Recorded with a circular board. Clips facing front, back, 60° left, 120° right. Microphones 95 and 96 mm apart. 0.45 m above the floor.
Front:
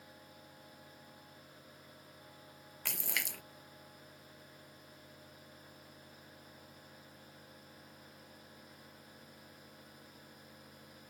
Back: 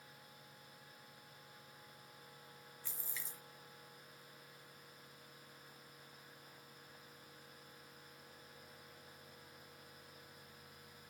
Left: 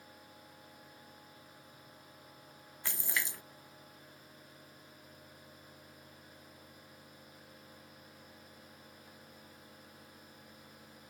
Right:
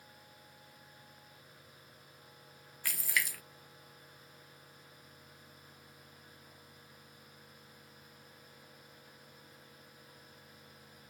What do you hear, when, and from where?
2.9 s a splash: 5° right